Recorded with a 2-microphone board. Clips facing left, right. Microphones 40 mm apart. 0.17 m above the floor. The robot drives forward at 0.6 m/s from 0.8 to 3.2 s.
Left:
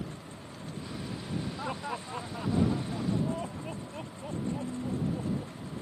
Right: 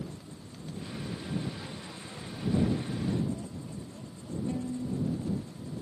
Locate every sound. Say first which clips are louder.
1.6 s laughter: left 7 dB; 70° left (ahead or behind); by 5.5 s 65° left (ahead or behind)
4.5 s a violin: right 1 dB; 10° right (ahead or behind)